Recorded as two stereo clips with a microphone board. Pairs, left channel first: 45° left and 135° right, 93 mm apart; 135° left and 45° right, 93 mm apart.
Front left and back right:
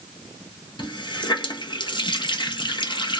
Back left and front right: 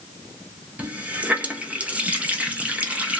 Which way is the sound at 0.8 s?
30° left.